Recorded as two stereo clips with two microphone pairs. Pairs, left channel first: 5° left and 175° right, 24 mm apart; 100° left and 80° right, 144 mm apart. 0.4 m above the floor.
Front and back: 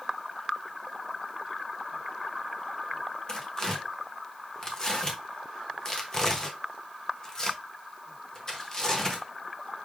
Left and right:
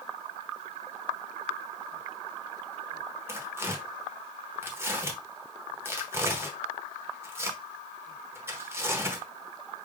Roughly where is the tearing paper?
Ahead.